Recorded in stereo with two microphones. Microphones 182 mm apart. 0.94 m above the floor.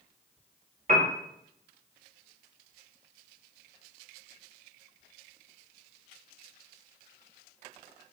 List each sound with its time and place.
0.9 s a piano: 45° right (ahead or behind), 0.9 m